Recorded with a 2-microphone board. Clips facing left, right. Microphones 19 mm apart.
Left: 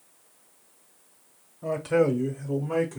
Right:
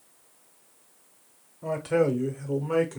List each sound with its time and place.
1.6 s a man speaking: centre (ahead or behind), 0.9 m; by 3.0 s 30° right (ahead or behind), 1.0 m